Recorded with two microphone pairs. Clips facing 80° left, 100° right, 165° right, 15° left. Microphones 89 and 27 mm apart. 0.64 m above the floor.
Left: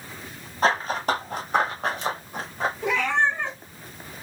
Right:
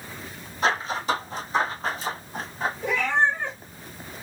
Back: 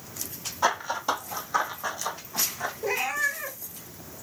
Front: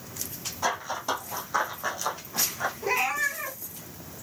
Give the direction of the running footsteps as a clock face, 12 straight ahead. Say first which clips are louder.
Left 2 dB, back 3 dB; 8 o'clock.